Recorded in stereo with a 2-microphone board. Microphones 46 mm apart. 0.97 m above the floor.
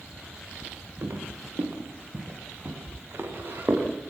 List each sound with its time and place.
1.0 s footsteps: 50° right (ahead or behind), 6.5 m; by 3.9 s 45° right (ahead or behind), 9.5 m